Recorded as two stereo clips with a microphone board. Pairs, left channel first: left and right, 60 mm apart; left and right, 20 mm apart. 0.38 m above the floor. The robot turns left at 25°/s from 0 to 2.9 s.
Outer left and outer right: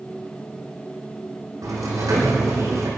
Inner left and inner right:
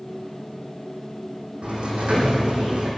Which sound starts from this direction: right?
A sliding door, at 1.6 s.